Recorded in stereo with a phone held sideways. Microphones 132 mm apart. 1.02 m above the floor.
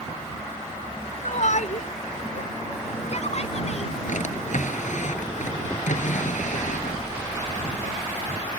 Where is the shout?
60° left (ahead or behind); by 3.9 s 55° left (ahead or behind).